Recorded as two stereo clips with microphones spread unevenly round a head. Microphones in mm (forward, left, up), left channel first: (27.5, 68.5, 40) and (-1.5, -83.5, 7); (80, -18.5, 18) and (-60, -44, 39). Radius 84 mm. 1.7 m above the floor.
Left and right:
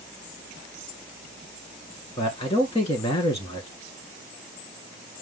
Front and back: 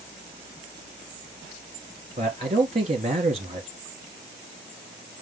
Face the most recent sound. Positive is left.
turn(degrees=135)